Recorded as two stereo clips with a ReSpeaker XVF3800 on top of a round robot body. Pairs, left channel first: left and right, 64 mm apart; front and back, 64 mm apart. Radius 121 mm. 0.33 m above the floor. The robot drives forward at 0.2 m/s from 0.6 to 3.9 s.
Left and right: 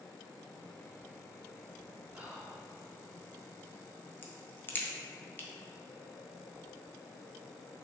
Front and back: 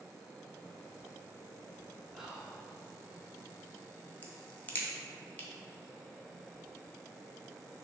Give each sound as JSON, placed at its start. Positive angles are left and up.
{"t": 2.1, "sound": "whispering", "azimuth_deg": -105, "distance_m": 0.8}
{"t": 4.2, "sound": "a crack", "azimuth_deg": 50, "distance_m": 0.7}